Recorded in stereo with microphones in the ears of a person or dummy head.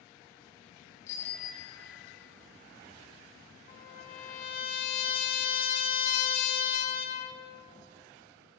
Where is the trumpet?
50° left (ahead or behind), 4 m.